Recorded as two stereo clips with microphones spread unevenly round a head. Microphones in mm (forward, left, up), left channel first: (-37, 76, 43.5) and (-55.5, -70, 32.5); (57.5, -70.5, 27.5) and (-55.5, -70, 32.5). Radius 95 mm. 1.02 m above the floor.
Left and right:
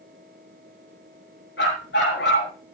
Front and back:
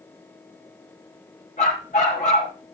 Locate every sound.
1.6 s a dog barking: 55° left, 5.5 m